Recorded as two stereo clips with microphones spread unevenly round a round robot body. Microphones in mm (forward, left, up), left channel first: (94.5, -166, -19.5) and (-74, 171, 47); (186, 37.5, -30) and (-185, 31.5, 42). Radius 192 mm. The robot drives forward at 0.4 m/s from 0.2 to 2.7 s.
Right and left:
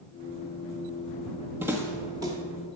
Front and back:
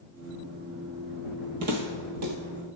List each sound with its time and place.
1.6 s footsteps: 165° right, 1.1 m; by 2.4 s 170° right, 1.4 m